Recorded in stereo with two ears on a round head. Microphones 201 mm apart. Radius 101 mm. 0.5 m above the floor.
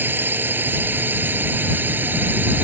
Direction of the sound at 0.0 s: 10° right (ahead or behind).